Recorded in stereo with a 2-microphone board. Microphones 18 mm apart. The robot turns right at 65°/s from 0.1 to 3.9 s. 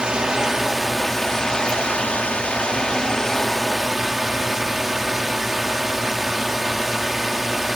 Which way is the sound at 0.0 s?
45° right.